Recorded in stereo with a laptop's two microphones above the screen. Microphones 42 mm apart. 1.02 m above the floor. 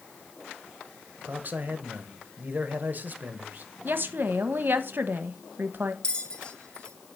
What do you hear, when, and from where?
1.3 s a man speaking: 45° right (ahead or behind), 0.8 m
3.9 s a woman speaking: 55° right (ahead or behind), 0.9 m
6.0 s a bell: 25° left (ahead or behind), 0.9 m